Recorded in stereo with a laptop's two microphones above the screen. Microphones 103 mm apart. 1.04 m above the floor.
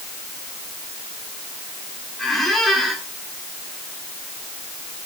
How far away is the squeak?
About 3 m.